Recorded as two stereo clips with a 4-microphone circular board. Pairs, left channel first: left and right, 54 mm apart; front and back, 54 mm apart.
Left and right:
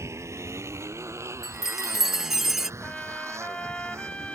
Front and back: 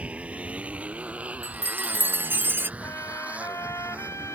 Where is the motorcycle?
115° right.